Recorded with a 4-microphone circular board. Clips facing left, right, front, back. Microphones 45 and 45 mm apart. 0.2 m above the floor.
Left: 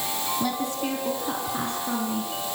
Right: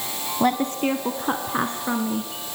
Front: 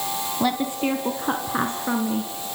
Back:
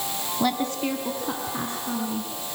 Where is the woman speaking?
85° right, 1.2 m; by 2.3 s 35° right, 3 m.